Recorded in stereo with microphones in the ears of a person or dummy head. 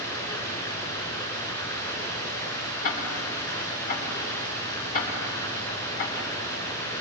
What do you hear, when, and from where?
0.0 s running water: 15° left (ahead or behind), 3.5 m
2.8 s ticking: 50° left (ahead or behind), 3 m